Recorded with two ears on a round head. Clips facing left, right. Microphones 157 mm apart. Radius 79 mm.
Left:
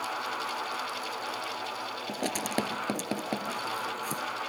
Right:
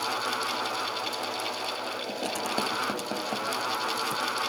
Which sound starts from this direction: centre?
Writing, at 2.1 s.